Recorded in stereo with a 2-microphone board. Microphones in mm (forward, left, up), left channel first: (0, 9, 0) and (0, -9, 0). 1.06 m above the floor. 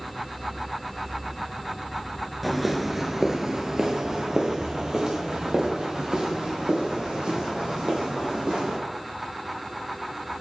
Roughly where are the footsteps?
Centre.